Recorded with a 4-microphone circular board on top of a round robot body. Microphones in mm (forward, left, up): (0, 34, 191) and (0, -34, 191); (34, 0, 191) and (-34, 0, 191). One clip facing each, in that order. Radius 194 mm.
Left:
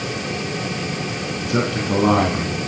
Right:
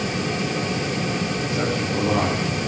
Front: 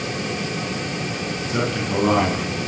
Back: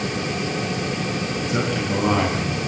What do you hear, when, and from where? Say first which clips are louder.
1.4 s a man speaking: left 2 dB, front 1 dB; 90° left, 5.5 m